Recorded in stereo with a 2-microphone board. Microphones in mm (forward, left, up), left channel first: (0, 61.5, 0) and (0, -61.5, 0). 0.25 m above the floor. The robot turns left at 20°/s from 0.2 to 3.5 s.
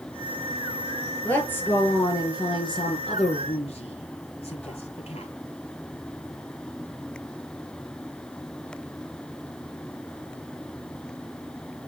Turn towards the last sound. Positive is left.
turn(degrees=125)